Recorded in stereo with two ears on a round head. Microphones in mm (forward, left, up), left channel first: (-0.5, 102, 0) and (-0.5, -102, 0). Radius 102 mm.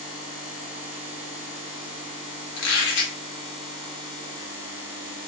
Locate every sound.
2.6 s a squeak: 70° left (ahead or behind), 1.9 m